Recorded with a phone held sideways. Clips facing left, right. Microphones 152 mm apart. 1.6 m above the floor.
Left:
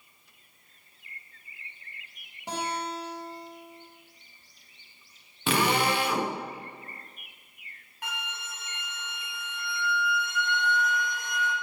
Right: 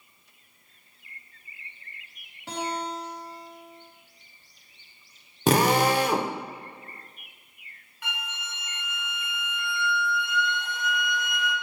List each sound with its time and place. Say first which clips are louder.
2.5 s a guitar: right 1 dB; 15° left (ahead or behind), 3 m
5.5 s a drill: right 5 dB; 40° right (ahead or behind), 0.9 m
8.0 s a flute: even; 45° left (ahead or behind), 3 m